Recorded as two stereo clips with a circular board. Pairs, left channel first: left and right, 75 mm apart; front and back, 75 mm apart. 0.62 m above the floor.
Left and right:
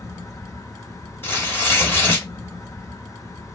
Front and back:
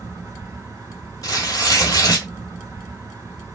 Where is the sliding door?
I don't hear a sliding door.